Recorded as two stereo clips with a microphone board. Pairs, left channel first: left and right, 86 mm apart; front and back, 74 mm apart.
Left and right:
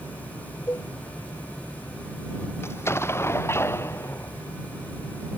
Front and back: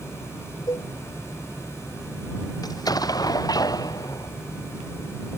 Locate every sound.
0.7 s a cowbell: 30° left
2.6 s an explosion: 30° left